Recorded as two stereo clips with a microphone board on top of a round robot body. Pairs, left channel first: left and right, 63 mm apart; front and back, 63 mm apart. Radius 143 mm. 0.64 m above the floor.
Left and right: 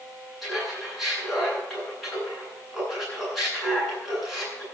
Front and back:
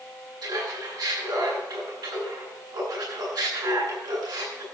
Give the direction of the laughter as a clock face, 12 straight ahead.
6 o'clock.